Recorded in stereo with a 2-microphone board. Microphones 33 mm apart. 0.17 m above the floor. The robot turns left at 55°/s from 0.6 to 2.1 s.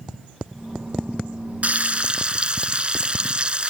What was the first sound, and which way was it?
Frying, 50° right (ahead or behind).